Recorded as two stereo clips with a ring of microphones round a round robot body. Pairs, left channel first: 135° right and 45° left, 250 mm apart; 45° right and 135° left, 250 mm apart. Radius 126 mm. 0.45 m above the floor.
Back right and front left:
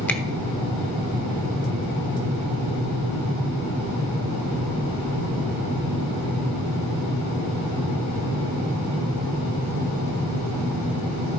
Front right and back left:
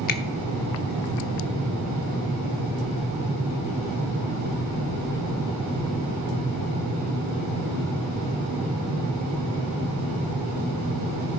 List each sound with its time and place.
0.1 s a finger snap: 55° right, 0.8 m